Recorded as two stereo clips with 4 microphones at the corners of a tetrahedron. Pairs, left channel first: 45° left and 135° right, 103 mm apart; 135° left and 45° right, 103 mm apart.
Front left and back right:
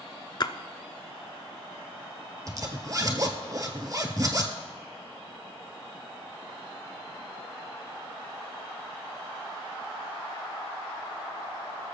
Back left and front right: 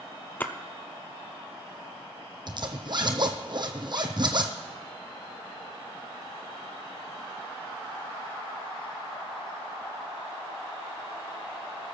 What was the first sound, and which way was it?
A splash, 70° left.